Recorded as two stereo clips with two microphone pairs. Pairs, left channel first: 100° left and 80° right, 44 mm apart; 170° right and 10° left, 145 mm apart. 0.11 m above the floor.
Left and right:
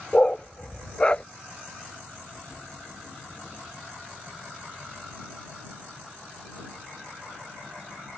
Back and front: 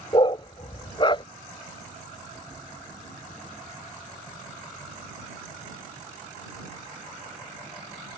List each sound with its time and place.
0.1 s a dog barking: 155° left